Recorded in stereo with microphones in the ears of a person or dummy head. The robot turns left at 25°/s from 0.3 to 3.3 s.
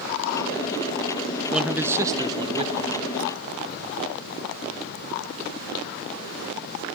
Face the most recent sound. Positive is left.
turn(degrees=-45)